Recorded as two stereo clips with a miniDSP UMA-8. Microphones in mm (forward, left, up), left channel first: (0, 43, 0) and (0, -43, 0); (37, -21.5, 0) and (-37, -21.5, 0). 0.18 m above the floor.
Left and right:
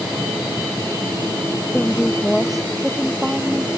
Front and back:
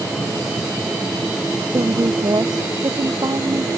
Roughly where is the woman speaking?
Behind.